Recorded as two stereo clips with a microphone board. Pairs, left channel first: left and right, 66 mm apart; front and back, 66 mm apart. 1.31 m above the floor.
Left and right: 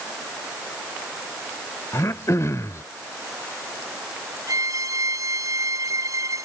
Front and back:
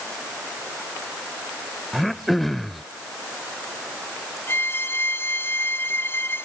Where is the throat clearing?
85° left.